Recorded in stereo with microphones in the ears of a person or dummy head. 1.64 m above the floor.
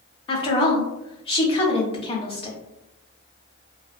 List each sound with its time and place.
0.3 s a woman speaking: 30° left (ahead or behind), 0.6 m